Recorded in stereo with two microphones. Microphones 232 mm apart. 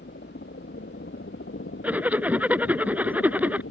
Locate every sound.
0.0 s a helicopter: 50° left (ahead or behind); by 3.7 s 60° left (ahead or behind)
1.8 s a zipper: 5° right (ahead or behind)